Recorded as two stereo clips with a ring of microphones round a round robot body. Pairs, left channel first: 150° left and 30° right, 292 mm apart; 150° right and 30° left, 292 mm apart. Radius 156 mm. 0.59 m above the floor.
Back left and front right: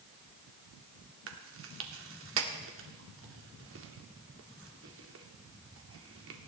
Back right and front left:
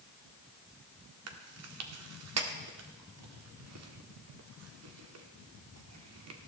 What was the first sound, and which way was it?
Chewing, 5° left.